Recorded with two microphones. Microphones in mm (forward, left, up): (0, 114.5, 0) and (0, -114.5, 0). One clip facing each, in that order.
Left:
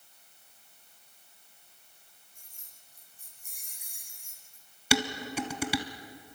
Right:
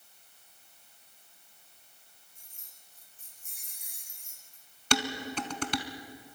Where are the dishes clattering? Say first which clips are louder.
Left 2 dB; 10° left (ahead or behind), 1.1 m.